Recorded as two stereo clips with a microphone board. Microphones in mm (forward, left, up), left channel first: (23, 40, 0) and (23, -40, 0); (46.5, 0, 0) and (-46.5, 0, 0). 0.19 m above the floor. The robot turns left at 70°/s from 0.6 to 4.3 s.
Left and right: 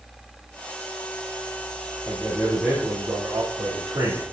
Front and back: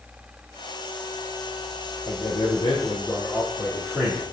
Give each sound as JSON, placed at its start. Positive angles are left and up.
{"t": 2.0, "sound": "a man speaking", "azimuth_deg": 20, "distance_m": 2.5}